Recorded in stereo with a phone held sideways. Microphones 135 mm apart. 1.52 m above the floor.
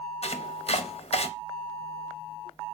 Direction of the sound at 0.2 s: 50° left (ahead or behind).